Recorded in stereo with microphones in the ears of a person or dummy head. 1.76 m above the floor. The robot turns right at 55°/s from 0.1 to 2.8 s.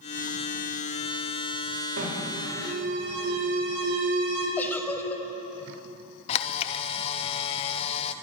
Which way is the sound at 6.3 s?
35° left (ahead or behind).